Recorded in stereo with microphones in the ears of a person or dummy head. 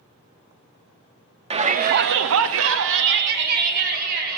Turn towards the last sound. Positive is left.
turn(degrees=-50)  # may be behind; listen again after turning